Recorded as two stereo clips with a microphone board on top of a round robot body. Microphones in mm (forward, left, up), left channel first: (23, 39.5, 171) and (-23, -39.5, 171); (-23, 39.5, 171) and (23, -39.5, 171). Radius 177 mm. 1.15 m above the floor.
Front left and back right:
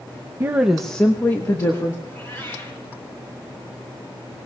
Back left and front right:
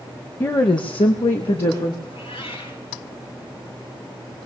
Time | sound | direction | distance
0.4 | a woman speaking | straight behind | 0.7 m
2.0 | a cat meowing | 125° left | 10 m